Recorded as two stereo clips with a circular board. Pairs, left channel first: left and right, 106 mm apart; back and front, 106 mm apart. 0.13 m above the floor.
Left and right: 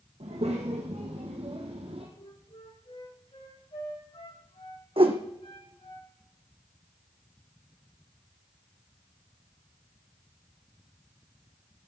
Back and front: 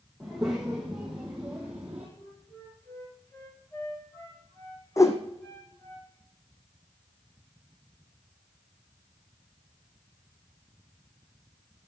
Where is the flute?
110° left, 10 m.